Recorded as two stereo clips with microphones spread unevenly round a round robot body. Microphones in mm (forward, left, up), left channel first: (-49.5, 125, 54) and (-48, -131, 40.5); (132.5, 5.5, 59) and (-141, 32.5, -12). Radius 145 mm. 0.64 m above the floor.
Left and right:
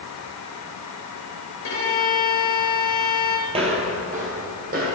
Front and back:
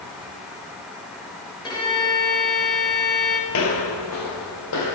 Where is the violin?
75° left, 2.5 m.